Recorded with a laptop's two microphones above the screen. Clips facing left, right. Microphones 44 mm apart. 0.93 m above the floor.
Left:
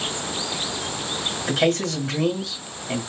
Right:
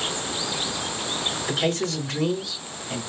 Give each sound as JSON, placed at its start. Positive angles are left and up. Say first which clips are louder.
{"t": 1.5, "sound": "a man speaking", "louder": "left 5 dB", "side_deg": 65, "distance_m": 2.0}